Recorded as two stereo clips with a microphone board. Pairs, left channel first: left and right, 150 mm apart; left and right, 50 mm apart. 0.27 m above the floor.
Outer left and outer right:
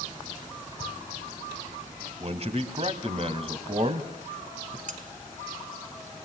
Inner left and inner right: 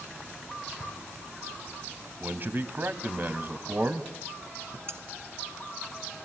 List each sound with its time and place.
2.2 s a man speaking: 45° right (ahead or behind), 1.6 m
4.9 s cutlery clinking: 55° right (ahead or behind), 1.8 m